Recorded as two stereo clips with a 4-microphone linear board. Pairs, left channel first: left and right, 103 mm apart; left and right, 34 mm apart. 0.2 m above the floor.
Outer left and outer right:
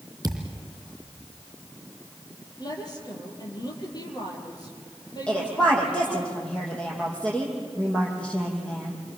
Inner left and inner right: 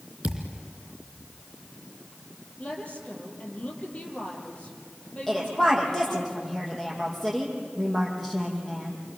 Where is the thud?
35° right (ahead or behind), 3 m.